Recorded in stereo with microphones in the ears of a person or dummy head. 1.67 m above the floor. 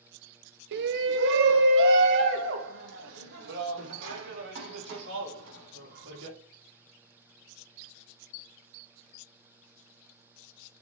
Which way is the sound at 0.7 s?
60° right (ahead or behind).